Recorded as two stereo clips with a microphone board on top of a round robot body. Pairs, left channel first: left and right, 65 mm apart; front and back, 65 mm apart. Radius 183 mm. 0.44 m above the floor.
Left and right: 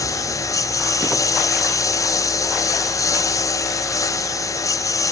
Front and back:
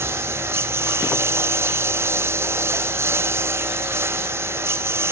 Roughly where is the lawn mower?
Behind left.